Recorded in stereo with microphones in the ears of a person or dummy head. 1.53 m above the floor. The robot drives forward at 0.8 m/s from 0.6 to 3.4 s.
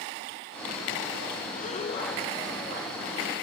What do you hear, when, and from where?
1.5 s breathing: 45° left (ahead or behind); by 2.9 s 20° left (ahead or behind)